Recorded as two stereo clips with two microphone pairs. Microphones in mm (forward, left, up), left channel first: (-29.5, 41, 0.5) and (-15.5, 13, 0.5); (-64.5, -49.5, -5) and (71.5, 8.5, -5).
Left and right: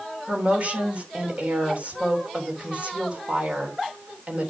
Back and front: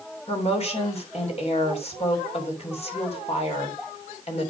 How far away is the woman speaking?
About 3 m.